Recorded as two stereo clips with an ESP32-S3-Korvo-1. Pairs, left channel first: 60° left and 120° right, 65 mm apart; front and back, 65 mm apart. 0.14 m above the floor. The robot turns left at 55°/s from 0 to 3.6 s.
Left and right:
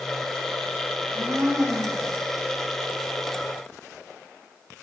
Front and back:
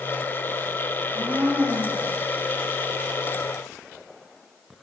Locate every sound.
1.0 s a blender: 130° right, 8.5 m; by 2.2 s 165° left, 8.5 m